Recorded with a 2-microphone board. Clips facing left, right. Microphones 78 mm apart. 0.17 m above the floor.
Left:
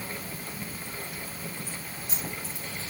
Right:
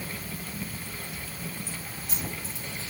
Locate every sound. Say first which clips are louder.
1.7 s keys jangling: even; 80° right, 4.5 m